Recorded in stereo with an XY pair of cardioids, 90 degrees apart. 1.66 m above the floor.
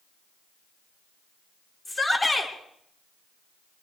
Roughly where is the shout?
Ahead left.